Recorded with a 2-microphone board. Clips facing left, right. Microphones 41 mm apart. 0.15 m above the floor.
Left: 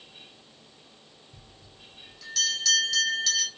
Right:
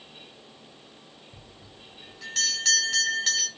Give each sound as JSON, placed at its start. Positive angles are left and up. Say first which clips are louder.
{"t": 1.3, "sound": "a bell", "louder": "right 4 dB", "side_deg": -40, "distance_m": 2.5}